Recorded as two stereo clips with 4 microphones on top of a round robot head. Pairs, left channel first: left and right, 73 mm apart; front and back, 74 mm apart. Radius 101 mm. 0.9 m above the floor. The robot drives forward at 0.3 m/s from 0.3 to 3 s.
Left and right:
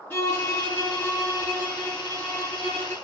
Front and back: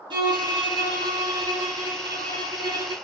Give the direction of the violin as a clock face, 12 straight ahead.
7 o'clock.